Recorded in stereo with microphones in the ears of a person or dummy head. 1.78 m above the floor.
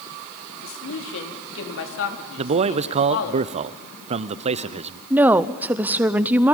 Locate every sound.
0.6 s a man speaking: 75° left (ahead or behind), 3.5 m
2.4 s a man speaking: 35° right (ahead or behind), 0.8 m
5.1 s a woman speaking: 5° right (ahead or behind), 0.8 m